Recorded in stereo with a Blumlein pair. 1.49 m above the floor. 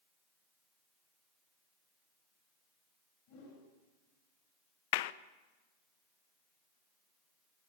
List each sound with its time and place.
3.3 s a whoosh: 45° left, 9.5 m
4.9 s a clap: 50° left, 0.9 m